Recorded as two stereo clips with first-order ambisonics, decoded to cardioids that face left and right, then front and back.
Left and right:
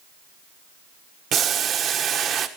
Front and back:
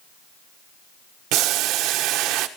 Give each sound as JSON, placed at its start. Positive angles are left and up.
{"t": 1.3, "sound": "boiling", "azimuth_deg": -145, "distance_m": 1.2}